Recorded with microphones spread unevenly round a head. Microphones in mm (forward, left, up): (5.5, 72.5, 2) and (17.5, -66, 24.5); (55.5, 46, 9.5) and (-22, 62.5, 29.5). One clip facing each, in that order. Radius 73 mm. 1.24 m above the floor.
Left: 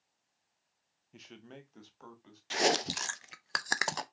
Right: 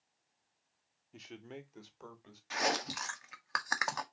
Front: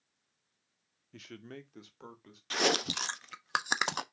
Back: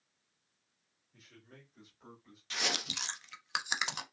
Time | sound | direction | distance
1.1 | a man speaking | 5° left | 0.7 m
2.5 | chewing | 35° left | 0.5 m